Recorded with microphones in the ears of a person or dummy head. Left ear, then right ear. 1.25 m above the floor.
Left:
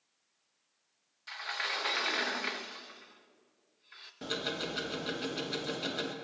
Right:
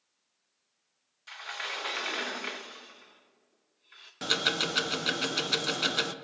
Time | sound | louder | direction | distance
1.3 | a sliding door | left 1 dB | centre (ahead or behind) | 0.7 m
4.2 | ticking | right 8 dB | 40° right (ahead or behind) | 0.7 m